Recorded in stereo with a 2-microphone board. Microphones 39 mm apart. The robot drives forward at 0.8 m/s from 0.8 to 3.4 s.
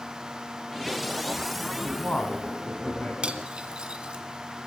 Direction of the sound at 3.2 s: 30° right (ahead or behind).